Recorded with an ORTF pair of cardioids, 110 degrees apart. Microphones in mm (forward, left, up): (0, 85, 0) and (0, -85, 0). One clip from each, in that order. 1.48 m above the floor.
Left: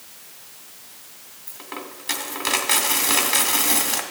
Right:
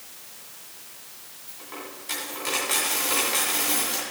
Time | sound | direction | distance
1.5 | a dropped coin | 55° left | 2.5 m